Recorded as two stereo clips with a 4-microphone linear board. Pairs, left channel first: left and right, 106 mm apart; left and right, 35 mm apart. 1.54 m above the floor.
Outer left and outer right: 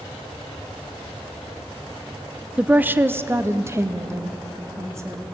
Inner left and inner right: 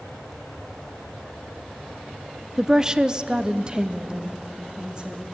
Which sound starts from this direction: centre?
A woman speaking, at 2.6 s.